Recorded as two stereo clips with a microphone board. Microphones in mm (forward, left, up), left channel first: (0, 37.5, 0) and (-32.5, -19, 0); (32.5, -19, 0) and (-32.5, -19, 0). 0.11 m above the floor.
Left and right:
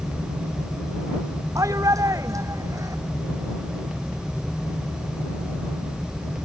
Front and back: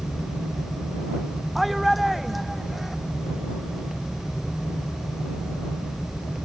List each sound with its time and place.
1.6 s a shout: 90° right